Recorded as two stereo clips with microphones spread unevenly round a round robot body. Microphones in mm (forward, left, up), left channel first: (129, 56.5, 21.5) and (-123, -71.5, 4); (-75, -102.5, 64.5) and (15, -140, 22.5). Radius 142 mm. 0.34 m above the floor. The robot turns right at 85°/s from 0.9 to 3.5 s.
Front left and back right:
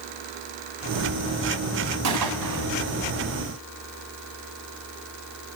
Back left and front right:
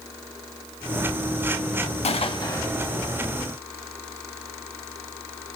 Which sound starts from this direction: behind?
A gunshot, at 2.0 s.